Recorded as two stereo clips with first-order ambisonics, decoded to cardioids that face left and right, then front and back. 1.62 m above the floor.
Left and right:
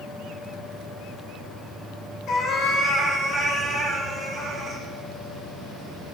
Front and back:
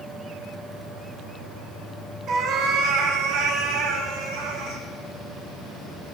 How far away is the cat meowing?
About 1.5 m.